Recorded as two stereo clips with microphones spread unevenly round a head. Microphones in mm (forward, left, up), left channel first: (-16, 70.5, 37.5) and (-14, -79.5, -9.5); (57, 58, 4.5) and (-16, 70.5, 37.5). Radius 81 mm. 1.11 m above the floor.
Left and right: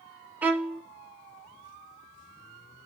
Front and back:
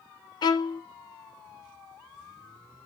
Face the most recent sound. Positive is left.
turn(degrees=-15)